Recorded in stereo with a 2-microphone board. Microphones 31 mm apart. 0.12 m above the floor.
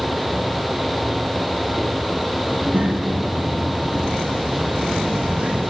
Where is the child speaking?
60° right (ahead or behind), 6.5 m; by 5.6 s 40° right (ahead or behind), 5.5 m.